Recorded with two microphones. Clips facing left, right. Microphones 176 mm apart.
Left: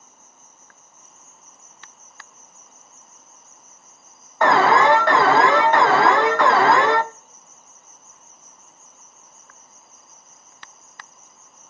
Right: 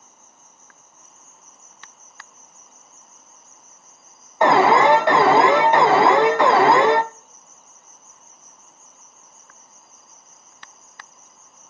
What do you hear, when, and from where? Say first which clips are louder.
0.0 s an insect: even; 55° right (ahead or behind), 1.7 m
4.4 s an alarm: right 2 dB; 20° right (ahead or behind), 0.6 m